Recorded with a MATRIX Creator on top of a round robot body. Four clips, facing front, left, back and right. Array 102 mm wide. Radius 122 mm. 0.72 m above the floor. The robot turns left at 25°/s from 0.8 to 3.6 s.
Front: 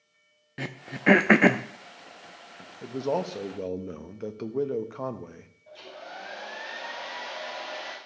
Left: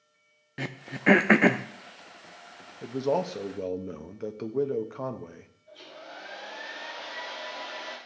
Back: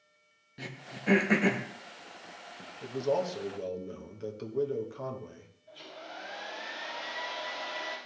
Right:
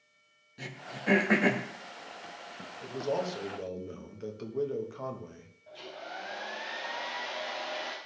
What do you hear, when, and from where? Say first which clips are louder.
0.6 s throat clearing: left 7 dB, front 9 dB; 45° left, 0.7 m; by 1.6 s 25° left, 0.7 m
2.8 s a man speaking: left 5 dB, front 1 dB; 60° left, 1.2 m; by 5.5 s 40° left, 1.2 m
5.7 s a hair dryer: right 3 dB, front 3 dB; 35° right, 4.5 m